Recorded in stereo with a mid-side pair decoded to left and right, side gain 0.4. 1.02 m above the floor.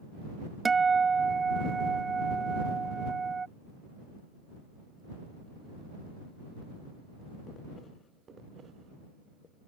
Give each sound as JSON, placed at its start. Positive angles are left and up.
{"t": 0.7, "sound": "a guitar", "azimuth_deg": -35}